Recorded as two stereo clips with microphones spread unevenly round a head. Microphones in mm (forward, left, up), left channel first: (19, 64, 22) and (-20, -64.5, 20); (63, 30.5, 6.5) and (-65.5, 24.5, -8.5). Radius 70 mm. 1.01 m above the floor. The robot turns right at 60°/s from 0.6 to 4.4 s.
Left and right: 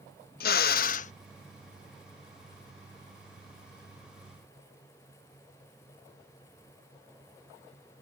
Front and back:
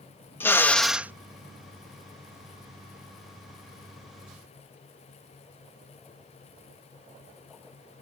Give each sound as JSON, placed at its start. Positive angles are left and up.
{"t": 0.4, "sound": "a drill", "azimuth_deg": 80}